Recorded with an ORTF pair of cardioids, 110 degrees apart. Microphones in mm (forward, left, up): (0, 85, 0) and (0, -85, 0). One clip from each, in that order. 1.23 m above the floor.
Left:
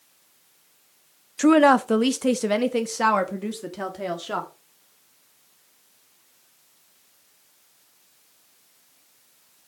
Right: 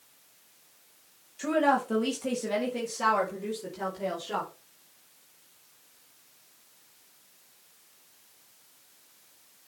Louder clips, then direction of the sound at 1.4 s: Left 9 dB; 65° left.